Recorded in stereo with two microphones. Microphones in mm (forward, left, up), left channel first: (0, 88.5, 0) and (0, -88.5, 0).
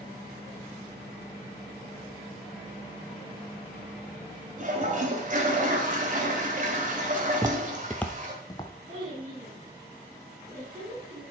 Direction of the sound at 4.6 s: 50° right (ahead or behind).